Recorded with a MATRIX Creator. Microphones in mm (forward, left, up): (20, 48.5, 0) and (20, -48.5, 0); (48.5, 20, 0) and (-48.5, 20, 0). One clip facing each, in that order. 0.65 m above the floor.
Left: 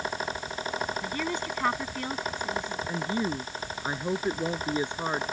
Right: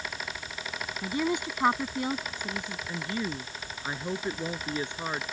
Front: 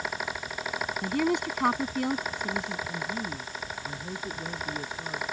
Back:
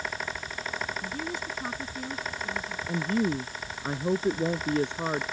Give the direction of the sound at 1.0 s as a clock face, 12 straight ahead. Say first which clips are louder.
Right 2 dB, front 8 dB; 1 o'clock.